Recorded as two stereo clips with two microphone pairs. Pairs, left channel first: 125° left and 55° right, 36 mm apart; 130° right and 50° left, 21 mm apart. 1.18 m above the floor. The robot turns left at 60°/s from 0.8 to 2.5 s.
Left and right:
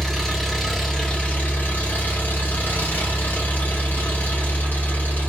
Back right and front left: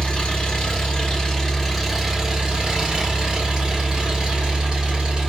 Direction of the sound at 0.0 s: 155° right.